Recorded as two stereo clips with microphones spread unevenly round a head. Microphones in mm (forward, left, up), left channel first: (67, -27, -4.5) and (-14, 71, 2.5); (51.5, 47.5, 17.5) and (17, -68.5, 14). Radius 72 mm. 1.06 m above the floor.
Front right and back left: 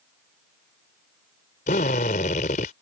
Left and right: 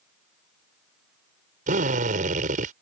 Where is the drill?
95° right.